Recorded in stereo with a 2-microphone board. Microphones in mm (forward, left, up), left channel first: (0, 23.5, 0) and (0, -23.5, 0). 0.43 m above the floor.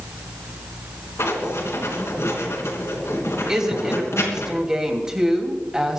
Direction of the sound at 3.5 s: 10° right (ahead or behind).